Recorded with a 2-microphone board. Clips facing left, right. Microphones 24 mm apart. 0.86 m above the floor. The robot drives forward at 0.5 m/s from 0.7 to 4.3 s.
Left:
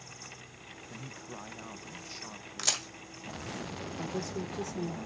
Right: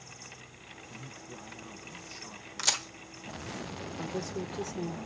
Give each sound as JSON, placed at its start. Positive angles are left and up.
{"t": 0.9, "sound": "a man speaking", "side_deg": 35, "distance_m": 0.6}
{"t": 2.6, "sound": "a crack", "side_deg": 0, "distance_m": 1.7}
{"t": 4.0, "sound": "a woman speaking", "side_deg": 10, "distance_m": 1.9}